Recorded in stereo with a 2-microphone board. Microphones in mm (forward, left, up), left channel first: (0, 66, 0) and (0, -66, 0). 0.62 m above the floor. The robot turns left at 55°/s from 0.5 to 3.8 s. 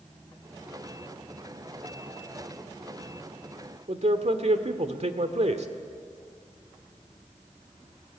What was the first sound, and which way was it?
A man speaking, 60° right (ahead or behind).